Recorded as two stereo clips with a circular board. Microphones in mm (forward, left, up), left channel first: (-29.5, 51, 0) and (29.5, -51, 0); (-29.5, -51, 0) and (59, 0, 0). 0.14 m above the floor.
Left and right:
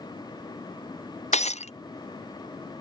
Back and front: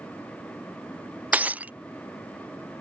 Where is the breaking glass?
105° left.